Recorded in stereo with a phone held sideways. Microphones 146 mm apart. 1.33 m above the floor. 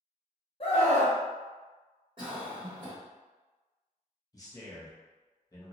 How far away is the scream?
About 0.8 m.